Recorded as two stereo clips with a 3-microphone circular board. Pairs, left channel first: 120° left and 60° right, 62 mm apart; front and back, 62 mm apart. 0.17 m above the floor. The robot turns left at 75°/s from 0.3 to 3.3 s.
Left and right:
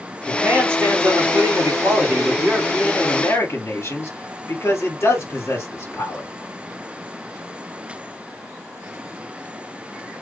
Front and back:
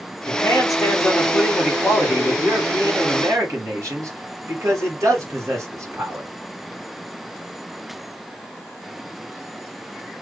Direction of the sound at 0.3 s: 20° left.